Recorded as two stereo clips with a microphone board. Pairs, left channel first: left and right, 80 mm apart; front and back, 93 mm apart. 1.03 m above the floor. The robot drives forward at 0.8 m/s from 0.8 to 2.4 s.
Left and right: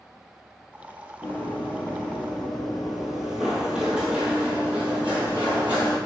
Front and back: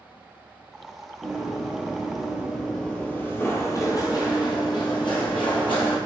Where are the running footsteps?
95° left, 1.0 m; by 6.0 s 20° right, 2.5 m.